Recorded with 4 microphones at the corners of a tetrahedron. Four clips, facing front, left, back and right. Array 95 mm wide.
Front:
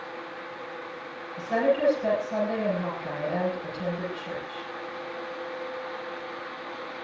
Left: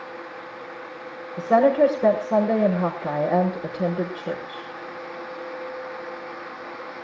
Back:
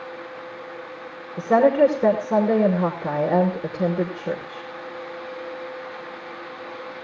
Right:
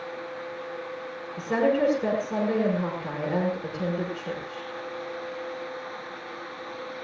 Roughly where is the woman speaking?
Behind.